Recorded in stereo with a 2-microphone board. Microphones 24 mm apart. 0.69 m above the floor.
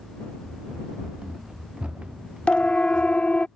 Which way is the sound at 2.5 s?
60° left (ahead or behind).